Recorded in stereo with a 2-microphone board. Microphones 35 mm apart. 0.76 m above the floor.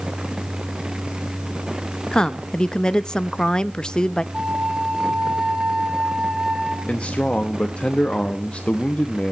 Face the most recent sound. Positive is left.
turn(degrees=35)  # may be behind; listen again after turning